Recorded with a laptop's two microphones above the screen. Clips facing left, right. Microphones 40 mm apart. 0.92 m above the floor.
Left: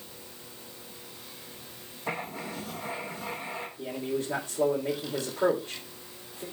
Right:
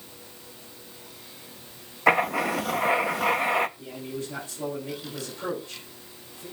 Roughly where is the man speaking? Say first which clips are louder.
Left 3 dB; left.